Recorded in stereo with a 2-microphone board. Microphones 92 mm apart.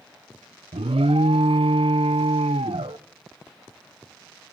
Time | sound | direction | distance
0.7 | an alarm | 85° right | 0.5 m